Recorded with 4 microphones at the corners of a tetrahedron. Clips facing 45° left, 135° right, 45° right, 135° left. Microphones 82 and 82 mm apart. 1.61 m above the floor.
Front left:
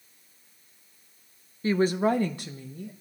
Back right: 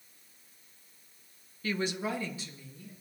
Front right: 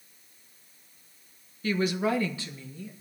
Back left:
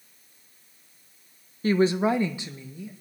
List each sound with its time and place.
1.6 s a woman speaking: 95° left, 0.8 m; by 2.9 s 60° left, 1.5 m